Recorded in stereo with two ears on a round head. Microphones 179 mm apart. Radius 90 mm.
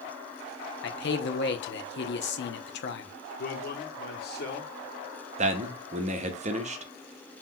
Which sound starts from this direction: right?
A man speaking, at 5.4 s.